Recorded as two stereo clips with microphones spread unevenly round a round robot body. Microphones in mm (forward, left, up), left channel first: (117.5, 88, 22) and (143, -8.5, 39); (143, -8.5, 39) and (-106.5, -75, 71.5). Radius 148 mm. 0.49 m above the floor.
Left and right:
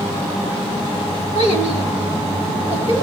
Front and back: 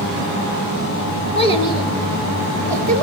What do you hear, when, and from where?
1.4 s a child speaking: 140° left, 2.5 m; by 3.0 s 165° left, 4 m